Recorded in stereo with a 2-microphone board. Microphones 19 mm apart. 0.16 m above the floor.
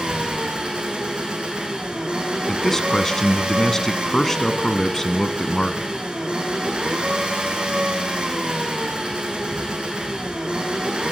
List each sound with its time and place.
0.0 s an engine running: 65° right (ahead or behind), 4 m
2.5 s a man speaking: 25° left (ahead or behind), 1.2 m